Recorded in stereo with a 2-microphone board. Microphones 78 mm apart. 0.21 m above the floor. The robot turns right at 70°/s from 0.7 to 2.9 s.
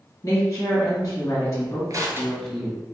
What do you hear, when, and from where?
0.2 s a woman speaking: 65° left, 1.4 m; by 2.8 s 150° right, 1.4 m
1.9 s crushing: 50° right (ahead or behind), 0.6 m; by 2.6 s centre (ahead or behind), 0.6 m